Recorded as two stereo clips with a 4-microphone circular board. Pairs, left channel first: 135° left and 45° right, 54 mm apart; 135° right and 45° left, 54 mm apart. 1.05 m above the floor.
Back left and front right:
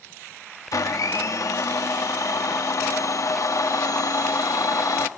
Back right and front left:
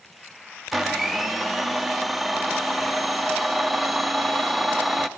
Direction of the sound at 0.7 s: 130° left.